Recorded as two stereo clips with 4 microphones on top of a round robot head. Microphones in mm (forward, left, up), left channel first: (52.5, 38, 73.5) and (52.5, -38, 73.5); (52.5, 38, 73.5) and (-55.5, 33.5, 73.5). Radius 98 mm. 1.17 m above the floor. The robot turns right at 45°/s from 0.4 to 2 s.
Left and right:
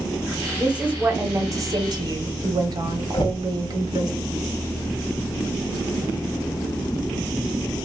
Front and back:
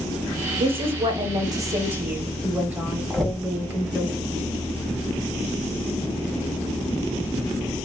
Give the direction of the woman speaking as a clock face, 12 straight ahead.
6 o'clock.